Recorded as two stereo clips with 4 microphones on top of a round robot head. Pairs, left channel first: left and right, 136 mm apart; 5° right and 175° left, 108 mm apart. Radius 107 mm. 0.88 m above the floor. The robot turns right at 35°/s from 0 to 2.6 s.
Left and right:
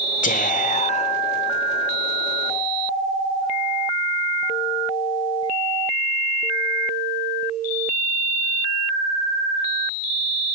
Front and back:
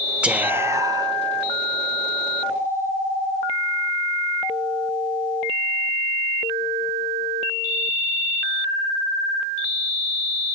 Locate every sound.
0.2 s whispering: 95° left, 1.5 m; by 1.2 s 130° left, 1.5 m